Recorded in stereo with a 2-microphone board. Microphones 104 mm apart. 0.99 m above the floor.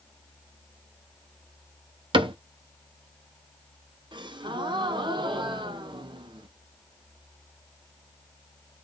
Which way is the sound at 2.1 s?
50° right (ahead or behind).